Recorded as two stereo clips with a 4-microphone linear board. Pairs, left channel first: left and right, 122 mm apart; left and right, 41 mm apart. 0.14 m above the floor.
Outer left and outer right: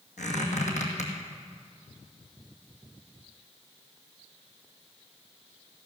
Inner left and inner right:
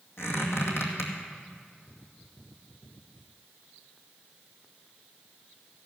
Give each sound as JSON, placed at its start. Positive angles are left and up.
{"t": 0.2, "sound": "a squeak", "side_deg": 80, "distance_m": 2.0}